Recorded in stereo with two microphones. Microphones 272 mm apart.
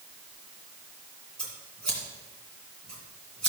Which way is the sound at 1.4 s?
65° right (ahead or behind).